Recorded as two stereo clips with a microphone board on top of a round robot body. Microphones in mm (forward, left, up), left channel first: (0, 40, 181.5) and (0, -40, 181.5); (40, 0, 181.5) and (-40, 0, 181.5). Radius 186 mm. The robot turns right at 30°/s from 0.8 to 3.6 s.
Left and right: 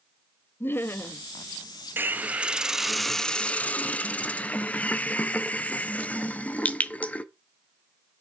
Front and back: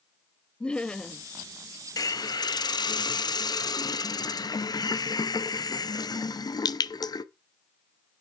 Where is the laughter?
65° left, 0.7 m; by 1.2 s 75° left, 0.7 m.